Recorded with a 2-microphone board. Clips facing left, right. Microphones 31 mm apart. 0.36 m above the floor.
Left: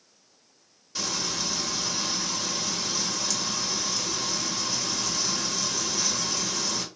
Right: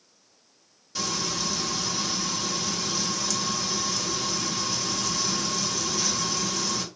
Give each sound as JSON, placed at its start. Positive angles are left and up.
{"t": 0.9, "sound": "frying", "side_deg": 0, "distance_m": 1.5}